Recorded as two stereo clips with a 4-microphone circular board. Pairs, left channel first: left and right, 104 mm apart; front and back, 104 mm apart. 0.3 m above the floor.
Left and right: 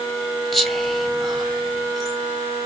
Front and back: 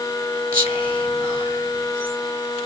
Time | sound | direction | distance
0.5 | whispering | 175° right | 1.2 m